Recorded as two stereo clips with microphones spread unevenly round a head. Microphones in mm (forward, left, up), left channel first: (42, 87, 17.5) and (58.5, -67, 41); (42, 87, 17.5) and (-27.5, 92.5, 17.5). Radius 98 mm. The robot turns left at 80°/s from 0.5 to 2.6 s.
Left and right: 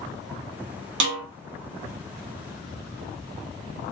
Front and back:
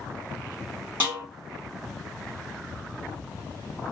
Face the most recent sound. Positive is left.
turn(degrees=125)